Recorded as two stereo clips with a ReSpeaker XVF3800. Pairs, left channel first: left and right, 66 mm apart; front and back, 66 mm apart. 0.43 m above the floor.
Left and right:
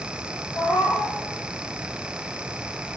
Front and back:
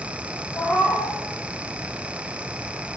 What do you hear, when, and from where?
0.6 s a cat meowing: 55° left, 6.5 m